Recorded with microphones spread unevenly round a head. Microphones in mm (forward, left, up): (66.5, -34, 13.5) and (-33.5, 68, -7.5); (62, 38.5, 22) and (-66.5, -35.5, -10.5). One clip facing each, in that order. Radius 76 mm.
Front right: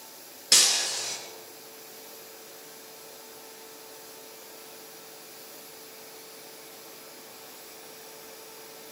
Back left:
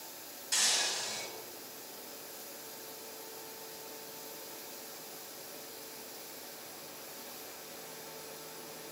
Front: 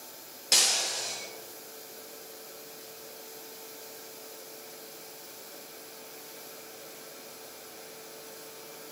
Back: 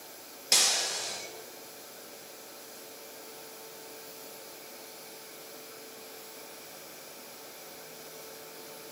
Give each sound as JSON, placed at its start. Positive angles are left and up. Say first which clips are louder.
{"t": 0.5, "sound": "breaking glass", "louder": "front right 5 dB, even", "azimuth_deg": -65, "distance_m": 9.5}